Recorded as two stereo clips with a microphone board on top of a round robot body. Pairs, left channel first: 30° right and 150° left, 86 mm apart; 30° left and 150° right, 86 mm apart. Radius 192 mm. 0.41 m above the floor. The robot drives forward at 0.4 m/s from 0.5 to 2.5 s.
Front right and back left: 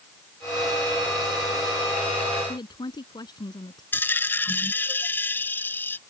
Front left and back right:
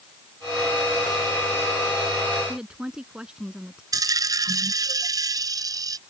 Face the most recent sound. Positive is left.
turn(degrees=-100)